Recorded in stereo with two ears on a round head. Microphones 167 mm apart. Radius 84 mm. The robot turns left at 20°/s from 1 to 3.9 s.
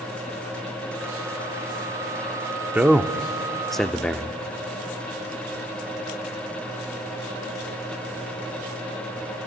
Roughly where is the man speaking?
Centre.